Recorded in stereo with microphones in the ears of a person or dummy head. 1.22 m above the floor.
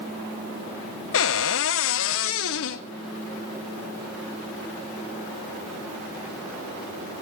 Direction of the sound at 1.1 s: 65° left (ahead or behind).